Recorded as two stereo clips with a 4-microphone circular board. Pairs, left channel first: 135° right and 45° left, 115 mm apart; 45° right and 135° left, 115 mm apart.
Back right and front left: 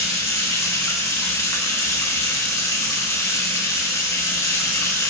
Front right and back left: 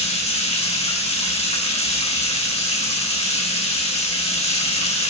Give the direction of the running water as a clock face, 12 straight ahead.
2 o'clock.